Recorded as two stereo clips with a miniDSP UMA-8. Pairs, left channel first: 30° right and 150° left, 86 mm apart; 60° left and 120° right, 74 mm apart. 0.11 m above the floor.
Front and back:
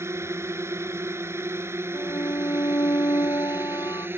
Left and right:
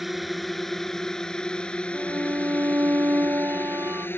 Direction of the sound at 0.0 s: 155° left.